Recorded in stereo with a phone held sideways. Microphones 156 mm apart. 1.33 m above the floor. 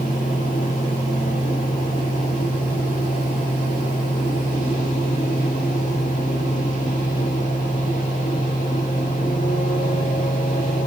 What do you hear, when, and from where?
0.0 s a fan: 60° left (ahead or behind), 4.5 m